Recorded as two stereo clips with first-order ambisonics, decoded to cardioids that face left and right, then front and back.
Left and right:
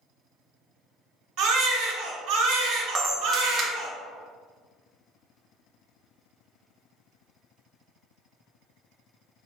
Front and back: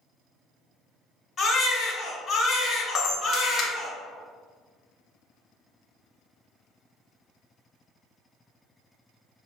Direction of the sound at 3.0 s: 45° right.